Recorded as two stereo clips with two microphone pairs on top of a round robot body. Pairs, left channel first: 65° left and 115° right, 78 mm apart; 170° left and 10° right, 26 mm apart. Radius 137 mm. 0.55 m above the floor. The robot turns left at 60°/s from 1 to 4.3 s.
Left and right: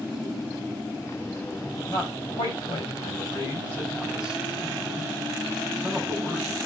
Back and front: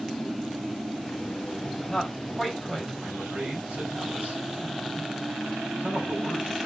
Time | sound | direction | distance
1.9 | a man speaking | 105° left | 5 m